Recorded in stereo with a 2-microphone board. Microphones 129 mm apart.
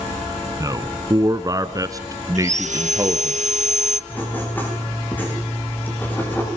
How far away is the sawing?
About 1.6 m.